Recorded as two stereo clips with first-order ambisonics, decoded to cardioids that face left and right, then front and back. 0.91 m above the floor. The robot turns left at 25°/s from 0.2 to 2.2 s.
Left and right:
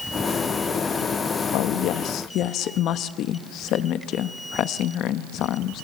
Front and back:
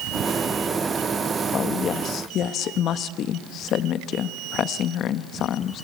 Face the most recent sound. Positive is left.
turn(degrees=50)